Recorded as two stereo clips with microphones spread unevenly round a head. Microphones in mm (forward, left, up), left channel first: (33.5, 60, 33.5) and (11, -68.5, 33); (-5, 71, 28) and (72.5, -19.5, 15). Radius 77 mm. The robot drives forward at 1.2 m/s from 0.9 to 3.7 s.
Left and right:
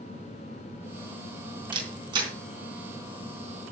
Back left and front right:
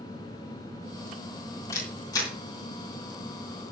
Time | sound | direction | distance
1.7 | a camera shutter | 160° right | 3 m